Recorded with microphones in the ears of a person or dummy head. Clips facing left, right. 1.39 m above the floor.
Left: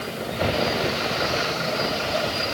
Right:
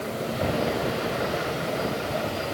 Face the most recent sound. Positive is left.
No sound to turn to.